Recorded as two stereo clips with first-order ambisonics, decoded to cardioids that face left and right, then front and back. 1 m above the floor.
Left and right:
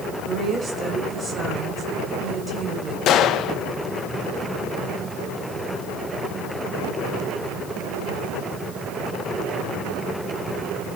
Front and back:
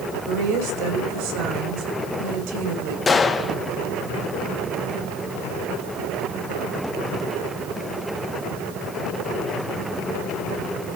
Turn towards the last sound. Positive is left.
turn(degrees=65)